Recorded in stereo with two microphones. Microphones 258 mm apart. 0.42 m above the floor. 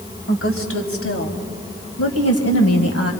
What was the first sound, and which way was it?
A woman speaking, 55° left (ahead or behind).